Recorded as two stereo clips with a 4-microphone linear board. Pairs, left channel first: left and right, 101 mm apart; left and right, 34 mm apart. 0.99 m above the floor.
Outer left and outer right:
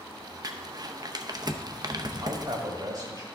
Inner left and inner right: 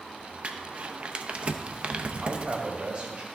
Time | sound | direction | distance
0.4 | crumpling | 40° right (ahead or behind) | 0.6 m
2.2 | a man speaking | 50° right (ahead or behind) | 1.5 m